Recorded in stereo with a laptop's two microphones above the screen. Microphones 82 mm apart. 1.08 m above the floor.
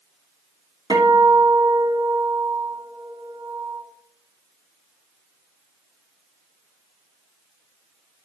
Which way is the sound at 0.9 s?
60° right (ahead or behind).